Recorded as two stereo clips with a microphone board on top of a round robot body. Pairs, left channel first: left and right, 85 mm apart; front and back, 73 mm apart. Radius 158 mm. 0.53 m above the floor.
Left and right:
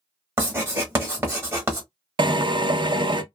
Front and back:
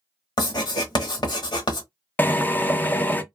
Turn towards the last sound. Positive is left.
turn(degrees=-65)